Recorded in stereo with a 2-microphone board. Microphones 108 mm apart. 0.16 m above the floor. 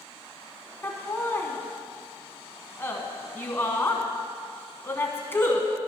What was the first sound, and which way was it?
Laughter, 20° left (ahead or behind).